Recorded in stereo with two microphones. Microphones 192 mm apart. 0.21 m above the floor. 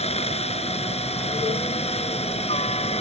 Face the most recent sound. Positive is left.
turn(degrees=30)  # may be behind; listen again after turning